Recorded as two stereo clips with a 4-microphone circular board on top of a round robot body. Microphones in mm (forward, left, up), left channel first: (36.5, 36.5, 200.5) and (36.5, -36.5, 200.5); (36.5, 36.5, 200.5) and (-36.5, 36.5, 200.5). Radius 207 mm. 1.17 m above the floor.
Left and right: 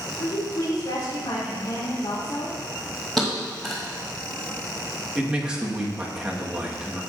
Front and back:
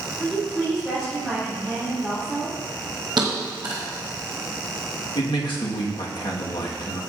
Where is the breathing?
No breathing in this recording.